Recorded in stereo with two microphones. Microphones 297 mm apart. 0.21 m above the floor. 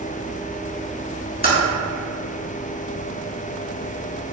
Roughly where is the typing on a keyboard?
Left.